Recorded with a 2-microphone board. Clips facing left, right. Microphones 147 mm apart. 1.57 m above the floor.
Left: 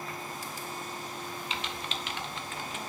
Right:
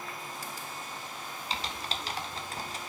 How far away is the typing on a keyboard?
About 0.7 m.